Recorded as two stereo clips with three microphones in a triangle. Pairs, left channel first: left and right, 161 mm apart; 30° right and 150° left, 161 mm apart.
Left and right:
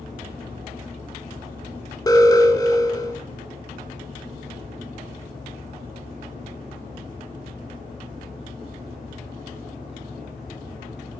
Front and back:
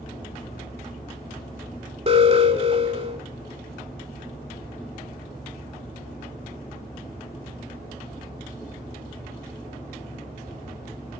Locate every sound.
2.1 s an alarm: 140° left, 1.2 m